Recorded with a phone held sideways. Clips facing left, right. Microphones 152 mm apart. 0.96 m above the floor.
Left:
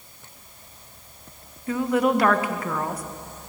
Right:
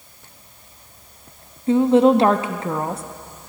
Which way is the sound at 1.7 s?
25° right (ahead or behind).